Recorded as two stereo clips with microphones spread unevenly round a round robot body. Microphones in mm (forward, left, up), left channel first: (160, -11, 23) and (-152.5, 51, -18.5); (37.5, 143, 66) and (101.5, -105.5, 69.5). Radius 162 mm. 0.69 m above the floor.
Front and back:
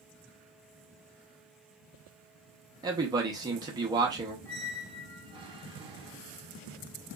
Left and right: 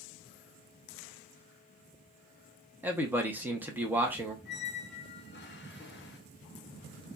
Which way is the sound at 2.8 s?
150° right.